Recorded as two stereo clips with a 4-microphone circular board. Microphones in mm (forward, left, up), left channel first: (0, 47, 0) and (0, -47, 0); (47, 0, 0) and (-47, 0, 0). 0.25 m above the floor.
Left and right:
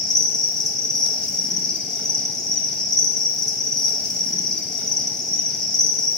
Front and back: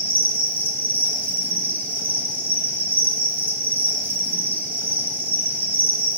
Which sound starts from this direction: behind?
An insect, at 0.0 s.